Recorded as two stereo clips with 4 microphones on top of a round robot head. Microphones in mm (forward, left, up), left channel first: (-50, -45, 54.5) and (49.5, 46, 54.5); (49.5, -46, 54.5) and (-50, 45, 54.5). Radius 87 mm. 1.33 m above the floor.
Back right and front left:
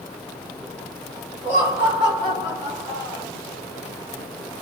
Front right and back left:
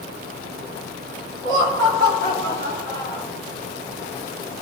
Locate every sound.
1.4 s laughter: 110° left, 3 m; by 3.2 s 80° left, 2.5 m